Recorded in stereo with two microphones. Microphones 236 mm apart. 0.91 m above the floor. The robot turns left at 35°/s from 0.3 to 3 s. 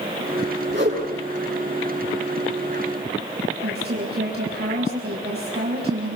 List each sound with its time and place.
0.7 s a whoosh: 45° right (ahead or behind), 7.5 m; by 1.1 s 60° right (ahead or behind), 7.5 m
3.6 s a woman speaking: 45° right (ahead or behind), 5 m